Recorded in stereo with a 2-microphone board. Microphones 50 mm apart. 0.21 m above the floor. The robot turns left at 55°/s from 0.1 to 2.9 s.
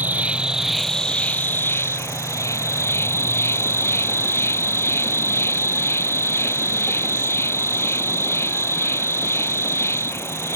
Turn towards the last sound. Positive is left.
turn(degrees=60)